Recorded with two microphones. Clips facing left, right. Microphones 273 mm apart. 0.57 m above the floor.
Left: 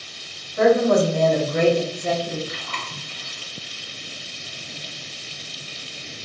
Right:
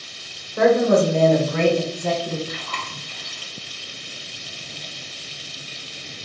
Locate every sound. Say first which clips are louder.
0.6 s a woman speaking: even; 65° right (ahead or behind), 2 m; by 2.4 s 60° right (ahead or behind), 1.5 m
2.5 s chewing: right 1 dB; 50° right (ahead or behind), 1.6 m